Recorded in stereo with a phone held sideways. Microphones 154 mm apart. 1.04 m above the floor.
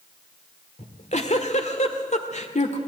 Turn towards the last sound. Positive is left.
turn(degrees=50)  # may be behind; listen again after turning